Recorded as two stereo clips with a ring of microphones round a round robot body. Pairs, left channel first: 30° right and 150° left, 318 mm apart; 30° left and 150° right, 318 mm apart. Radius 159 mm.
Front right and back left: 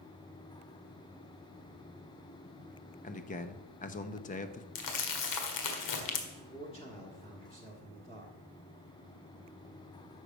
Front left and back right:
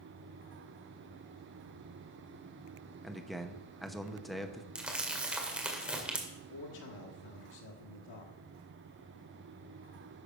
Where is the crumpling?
65° right, 1.7 m.